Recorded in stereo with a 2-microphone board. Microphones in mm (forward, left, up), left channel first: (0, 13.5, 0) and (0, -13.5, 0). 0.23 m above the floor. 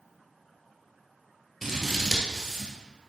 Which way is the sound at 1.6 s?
Centre (ahead or behind).